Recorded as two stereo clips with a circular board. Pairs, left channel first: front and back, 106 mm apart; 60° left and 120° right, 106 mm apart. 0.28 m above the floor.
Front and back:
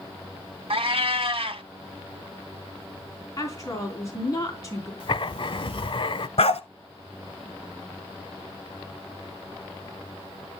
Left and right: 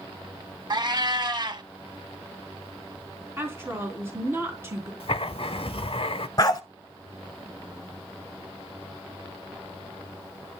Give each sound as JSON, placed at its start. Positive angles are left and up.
{"t": 0.7, "sound": "a cat meowing", "azimuth_deg": -160, "distance_m": 0.7}
{"t": 3.4, "sound": "a woman speaking", "azimuth_deg": -55, "distance_m": 3.5}
{"t": 5.0, "sound": "writing", "azimuth_deg": 30, "distance_m": 0.5}
{"t": 6.4, "sound": "a dog barking", "azimuth_deg": 5, "distance_m": 0.9}